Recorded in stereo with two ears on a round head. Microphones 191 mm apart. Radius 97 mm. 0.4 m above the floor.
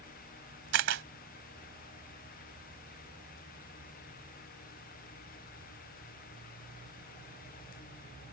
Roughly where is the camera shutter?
Right.